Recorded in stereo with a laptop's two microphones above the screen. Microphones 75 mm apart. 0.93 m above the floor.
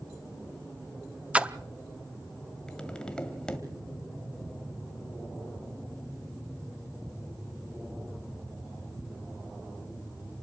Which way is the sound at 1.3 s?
20° right (ahead or behind).